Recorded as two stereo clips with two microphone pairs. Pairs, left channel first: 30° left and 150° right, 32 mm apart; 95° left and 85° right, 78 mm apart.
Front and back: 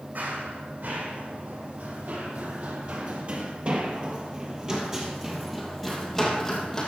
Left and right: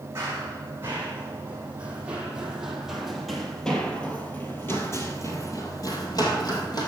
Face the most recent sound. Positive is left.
turn(degrees=105)